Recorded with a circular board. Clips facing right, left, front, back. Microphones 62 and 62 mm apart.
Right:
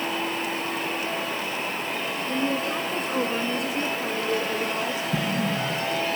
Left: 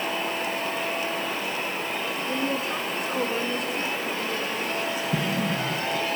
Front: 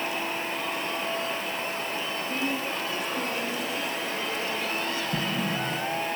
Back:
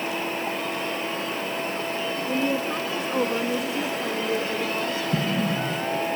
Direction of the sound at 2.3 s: 165° left.